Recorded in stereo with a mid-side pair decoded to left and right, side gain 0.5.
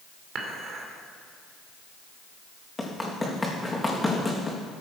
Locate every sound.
0.3 s dishes clattering: 55° right, 2.5 m
2.8 s running footsteps: 15° left, 3.5 m